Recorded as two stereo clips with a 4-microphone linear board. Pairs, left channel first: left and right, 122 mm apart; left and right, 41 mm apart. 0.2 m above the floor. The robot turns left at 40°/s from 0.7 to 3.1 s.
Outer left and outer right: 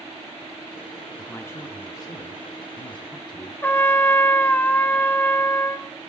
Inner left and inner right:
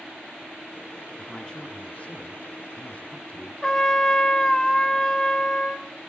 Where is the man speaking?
155° left, 1.6 m; by 3.5 s 80° left, 1.6 m.